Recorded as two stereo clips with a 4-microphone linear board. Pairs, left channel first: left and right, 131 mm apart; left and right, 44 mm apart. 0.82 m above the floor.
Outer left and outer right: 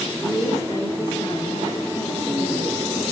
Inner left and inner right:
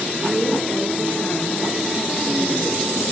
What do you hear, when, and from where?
0.2 s a woman speaking: 30° left (ahead or behind), 2 m; by 2.8 s 60° left (ahead or behind), 1.4 m